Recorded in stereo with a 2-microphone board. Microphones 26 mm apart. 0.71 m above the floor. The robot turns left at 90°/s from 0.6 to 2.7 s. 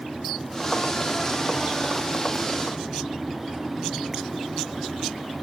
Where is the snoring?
I don't hear snoring.